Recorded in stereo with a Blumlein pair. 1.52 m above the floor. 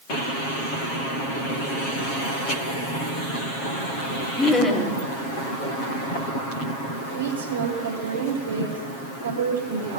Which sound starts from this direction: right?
A woman speaking, at 7.1 s.